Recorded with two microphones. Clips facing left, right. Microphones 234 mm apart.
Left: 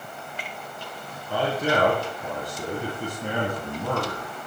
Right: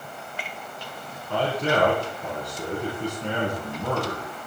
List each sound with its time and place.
1.3 s a man speaking: 5° left (ahead or behind), 3.5 m